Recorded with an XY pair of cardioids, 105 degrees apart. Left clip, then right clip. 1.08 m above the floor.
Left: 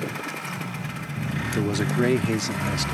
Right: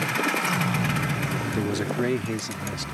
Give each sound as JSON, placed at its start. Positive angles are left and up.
{"t": 1.5, "sound": "a man speaking", "azimuth_deg": 15}